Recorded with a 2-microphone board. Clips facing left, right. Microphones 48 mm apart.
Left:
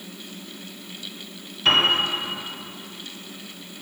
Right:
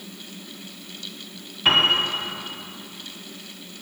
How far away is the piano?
About 1.7 m.